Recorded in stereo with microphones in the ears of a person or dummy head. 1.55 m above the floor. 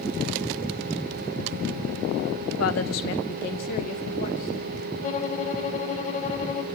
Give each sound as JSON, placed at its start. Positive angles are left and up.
{"t": 2.6, "sound": "a woman speaking", "side_deg": 80, "distance_m": 2.0}
{"t": 5.0, "sound": "a violin", "side_deg": 35, "distance_m": 1.8}